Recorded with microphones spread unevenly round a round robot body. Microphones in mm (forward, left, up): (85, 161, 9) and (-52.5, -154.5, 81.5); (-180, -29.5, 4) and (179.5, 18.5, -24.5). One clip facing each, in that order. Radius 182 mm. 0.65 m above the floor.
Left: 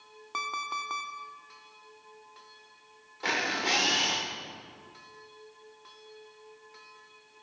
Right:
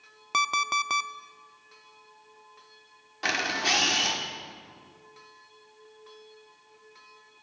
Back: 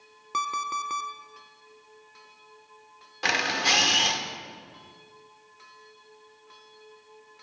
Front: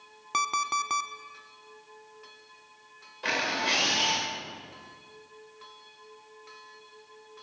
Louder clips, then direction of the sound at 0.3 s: Right 8 dB, front 1 dB; 75° right.